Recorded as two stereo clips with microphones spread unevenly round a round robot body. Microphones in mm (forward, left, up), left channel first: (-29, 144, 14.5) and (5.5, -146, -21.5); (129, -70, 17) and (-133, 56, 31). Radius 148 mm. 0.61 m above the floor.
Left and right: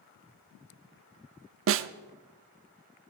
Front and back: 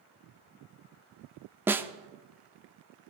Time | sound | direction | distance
1.7 | a snare drum | 120° right | 0.5 m